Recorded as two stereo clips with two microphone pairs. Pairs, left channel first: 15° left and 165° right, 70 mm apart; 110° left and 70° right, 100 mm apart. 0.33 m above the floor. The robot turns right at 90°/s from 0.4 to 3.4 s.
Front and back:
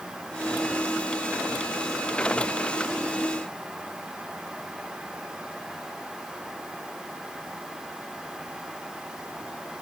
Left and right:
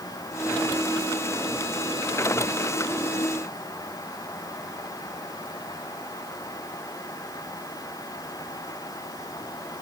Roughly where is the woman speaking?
I don't hear a woman speaking.